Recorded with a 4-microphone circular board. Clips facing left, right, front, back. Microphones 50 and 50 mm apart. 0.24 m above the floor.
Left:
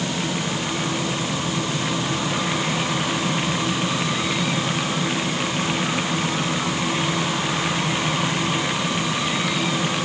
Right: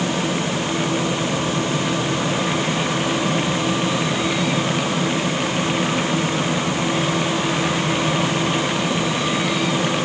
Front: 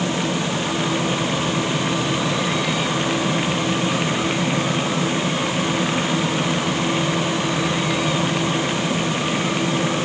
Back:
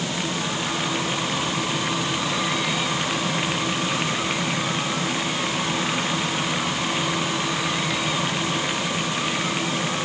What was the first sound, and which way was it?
Only background noise.